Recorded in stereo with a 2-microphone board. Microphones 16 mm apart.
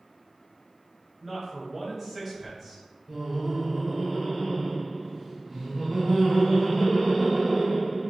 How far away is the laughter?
About 0.9 m.